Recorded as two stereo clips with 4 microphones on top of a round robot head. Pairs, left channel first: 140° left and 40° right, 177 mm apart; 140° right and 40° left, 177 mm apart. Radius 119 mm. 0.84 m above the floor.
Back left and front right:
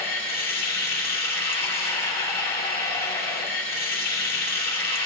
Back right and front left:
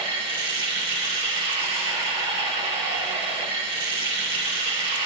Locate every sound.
0.0 s running water: 105° left, 2.5 m